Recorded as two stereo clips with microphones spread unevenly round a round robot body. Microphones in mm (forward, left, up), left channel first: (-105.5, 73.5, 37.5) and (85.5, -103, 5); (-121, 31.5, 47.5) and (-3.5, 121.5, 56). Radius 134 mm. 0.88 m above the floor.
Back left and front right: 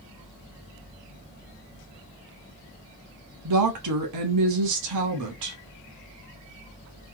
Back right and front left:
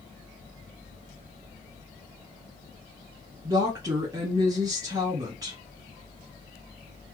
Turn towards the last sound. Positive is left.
turn(degrees=-35)